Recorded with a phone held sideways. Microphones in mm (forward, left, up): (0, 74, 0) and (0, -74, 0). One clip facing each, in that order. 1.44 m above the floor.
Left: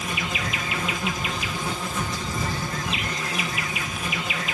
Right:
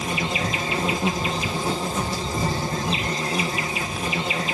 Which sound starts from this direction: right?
An insect, at 0.0 s.